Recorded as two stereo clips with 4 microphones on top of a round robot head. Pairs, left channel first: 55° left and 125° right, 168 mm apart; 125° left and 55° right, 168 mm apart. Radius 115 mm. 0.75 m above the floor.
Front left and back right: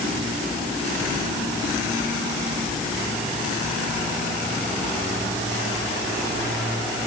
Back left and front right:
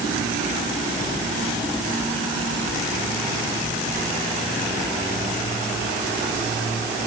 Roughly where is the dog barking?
I don't hear a dog barking.